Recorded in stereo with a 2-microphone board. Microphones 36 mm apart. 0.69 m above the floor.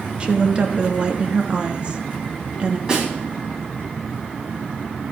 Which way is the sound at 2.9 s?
20° right (ahead or behind).